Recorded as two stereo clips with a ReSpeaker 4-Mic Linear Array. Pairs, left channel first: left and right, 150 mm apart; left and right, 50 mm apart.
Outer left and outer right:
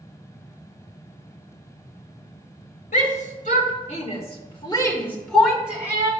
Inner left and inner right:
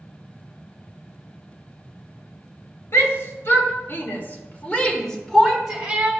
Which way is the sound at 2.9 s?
65° left (ahead or behind).